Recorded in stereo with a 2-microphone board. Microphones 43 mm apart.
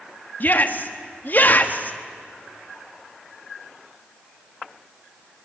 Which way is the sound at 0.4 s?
45° left (ahead or behind).